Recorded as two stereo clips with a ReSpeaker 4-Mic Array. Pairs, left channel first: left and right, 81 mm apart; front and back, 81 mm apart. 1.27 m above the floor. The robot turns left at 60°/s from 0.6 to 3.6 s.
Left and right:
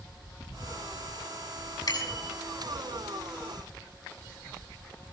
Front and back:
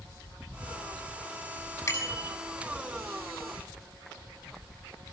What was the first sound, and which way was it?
A bicycle bell, 60° left.